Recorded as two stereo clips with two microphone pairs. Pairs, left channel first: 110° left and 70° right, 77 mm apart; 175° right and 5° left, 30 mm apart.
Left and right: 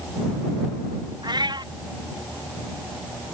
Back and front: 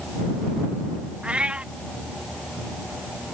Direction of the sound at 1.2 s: 45° right.